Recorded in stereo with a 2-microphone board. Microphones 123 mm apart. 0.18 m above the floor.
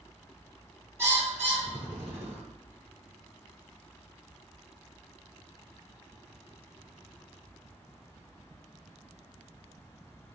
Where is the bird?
20° right (ahead or behind), 1.5 m.